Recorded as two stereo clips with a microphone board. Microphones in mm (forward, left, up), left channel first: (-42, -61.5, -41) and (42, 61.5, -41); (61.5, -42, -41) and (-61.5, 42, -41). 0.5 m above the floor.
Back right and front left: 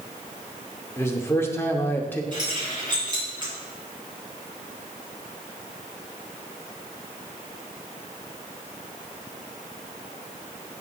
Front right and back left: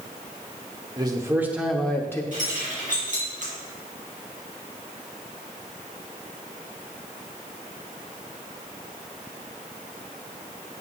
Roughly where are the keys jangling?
Behind left.